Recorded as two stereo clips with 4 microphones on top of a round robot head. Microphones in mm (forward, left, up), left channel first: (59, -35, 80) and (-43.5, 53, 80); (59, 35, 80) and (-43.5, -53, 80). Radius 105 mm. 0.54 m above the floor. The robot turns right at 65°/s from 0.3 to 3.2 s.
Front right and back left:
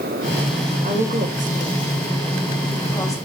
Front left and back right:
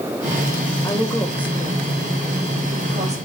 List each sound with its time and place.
0.8 s a woman speaking: 105° left, 3 m; by 3.2 s 105° right, 3 m